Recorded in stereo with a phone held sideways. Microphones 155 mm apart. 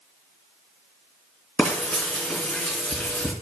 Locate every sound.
1.6 s frying: 5° left (ahead or behind), 2.5 m